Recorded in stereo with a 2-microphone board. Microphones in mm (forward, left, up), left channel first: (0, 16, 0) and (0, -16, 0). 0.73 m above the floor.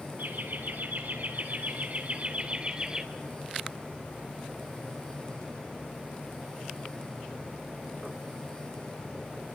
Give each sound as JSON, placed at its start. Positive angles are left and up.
{"t": 0.2, "sound": "laughter", "side_deg": -75, "distance_m": 4.5}